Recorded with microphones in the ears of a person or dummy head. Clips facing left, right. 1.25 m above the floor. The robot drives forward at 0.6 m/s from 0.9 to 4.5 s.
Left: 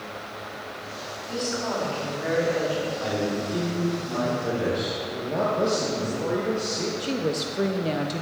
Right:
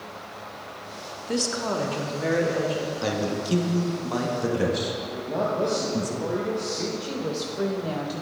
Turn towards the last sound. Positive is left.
turn(degrees=30)  # may be behind; listen again after turning